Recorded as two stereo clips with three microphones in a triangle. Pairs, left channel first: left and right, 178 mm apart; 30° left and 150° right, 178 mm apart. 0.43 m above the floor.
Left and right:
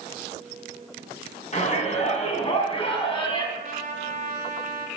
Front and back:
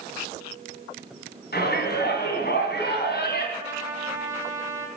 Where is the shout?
45° left, 4 m; by 3.5 s 30° left, 4 m.